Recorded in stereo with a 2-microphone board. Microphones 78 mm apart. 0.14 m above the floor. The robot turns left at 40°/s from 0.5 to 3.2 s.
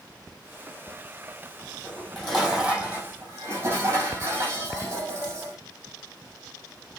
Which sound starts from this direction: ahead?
Dishes clattering, at 1.8 s.